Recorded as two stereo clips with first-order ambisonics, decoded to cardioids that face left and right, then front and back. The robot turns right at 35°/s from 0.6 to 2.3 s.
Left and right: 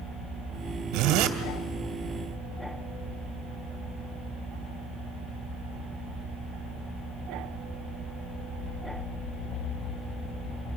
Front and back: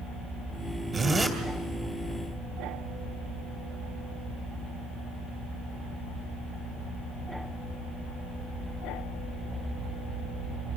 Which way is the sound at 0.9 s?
115° right.